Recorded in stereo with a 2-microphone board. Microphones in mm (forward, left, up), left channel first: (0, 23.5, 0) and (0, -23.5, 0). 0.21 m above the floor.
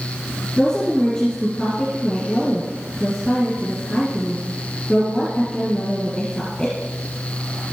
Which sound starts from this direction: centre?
A woman speaking, at 0.6 s.